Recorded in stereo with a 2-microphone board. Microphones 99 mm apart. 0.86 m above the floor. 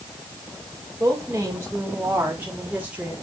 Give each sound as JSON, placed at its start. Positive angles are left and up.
{"t": 1.0, "sound": "a woman speaking", "side_deg": -30, "distance_m": 3.0}